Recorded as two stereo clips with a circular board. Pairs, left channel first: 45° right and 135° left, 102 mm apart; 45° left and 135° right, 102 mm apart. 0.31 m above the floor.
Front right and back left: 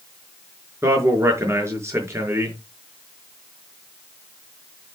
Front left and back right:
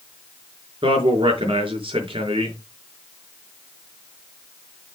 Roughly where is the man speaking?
Behind.